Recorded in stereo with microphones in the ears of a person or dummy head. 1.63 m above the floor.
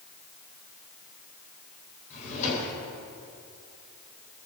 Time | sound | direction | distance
2.1 | a drawer | 45° left (ahead or behind) | 3.5 m